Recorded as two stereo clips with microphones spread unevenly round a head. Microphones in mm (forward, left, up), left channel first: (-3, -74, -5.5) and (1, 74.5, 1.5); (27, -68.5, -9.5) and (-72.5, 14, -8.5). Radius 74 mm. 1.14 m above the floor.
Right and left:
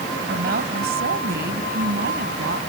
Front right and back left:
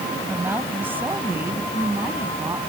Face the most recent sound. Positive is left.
turn(degrees=65)